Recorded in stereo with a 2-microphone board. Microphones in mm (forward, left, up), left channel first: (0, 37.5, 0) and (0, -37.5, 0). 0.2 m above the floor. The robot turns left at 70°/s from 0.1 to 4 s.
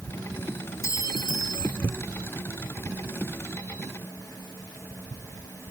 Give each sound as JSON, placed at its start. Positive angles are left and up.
{"t": 0.8, "sound": "a clink", "azimuth_deg": 140}